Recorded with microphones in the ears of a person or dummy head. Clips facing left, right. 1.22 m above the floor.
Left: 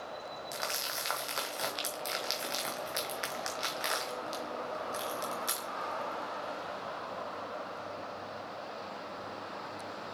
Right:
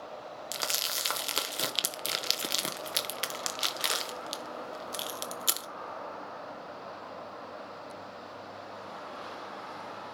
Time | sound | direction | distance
0.5 | crumpling | 50° right (ahead or behind) | 0.7 m